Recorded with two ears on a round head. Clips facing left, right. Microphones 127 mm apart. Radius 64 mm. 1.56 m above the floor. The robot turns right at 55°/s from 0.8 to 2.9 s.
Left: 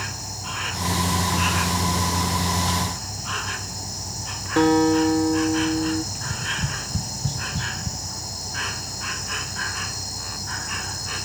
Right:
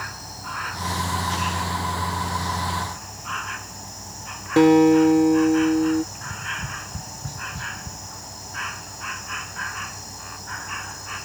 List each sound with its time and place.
0.0 s an insect: 25° left; by 11.3 s 140° left
4.6 s a guitar: 20° right (ahead or behind)
6.1 s tapping: 30° left (ahead or behind)